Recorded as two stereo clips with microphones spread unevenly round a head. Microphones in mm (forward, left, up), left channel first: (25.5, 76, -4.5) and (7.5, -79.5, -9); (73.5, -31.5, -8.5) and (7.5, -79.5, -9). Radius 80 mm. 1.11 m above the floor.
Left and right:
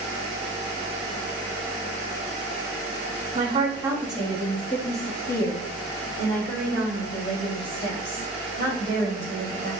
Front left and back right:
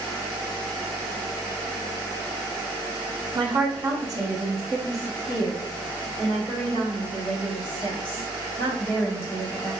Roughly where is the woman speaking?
Behind right.